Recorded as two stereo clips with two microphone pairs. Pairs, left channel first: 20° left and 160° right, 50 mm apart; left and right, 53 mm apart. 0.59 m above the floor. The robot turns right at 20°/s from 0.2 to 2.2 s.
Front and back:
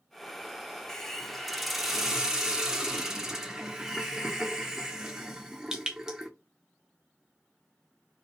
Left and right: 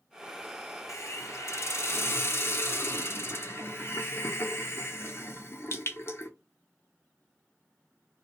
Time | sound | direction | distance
0.9 | a hiss | 95° left | 0.7 m